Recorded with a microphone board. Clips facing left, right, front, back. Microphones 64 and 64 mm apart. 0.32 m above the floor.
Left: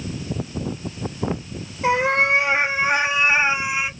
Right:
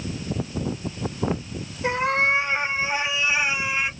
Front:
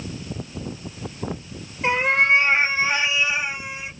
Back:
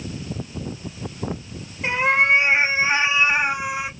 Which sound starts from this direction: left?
A cat meowing, at 1.8 s.